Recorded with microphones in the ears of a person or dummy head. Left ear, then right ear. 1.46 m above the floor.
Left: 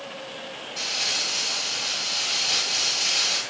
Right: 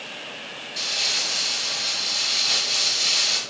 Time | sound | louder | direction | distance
0.8 | crumpling | right 2 dB | 20° right (ahead or behind) | 2 m